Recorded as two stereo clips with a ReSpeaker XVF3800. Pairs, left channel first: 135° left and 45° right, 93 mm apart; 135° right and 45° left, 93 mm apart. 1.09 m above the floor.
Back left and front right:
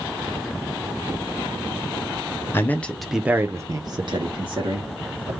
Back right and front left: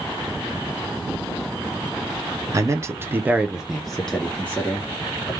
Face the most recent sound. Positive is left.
turn(degrees=-65)